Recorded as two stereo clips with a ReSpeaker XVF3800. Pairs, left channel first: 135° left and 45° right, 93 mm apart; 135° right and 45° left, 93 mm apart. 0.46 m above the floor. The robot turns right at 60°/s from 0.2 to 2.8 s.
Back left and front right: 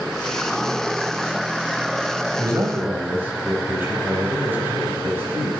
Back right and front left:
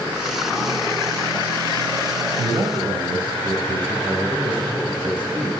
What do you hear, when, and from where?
2.4 s a man speaking: 5° right, 3 m; by 5.5 s 20° left, 3 m